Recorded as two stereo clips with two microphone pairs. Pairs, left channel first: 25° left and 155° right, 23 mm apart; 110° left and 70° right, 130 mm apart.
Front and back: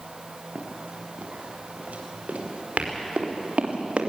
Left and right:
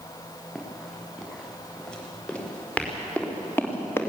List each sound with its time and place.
0.6 s running footsteps: 160° right, 6 m; by 4.1 s straight behind, 3.5 m